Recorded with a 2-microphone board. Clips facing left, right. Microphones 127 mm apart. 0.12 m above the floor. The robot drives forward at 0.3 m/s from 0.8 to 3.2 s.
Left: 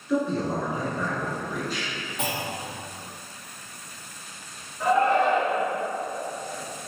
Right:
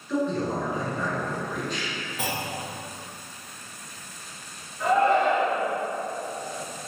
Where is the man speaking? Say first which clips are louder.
Left 1 dB; 5° left (ahead or behind), 1.2 m.